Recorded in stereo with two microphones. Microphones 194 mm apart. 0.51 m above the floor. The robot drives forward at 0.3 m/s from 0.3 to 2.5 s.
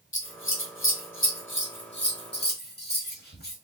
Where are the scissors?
75° left (ahead or behind), 0.8 m; by 3.6 s 55° left (ahead or behind), 0.9 m.